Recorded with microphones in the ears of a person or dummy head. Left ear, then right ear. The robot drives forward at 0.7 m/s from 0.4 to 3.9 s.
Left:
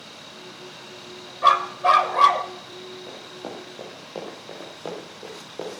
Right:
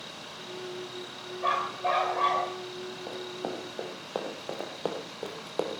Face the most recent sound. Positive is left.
turn(degrees=-55)  # may be behind; listen again after turning